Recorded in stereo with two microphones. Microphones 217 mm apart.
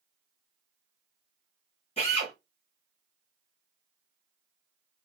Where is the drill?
30° left (ahead or behind), 1.5 m.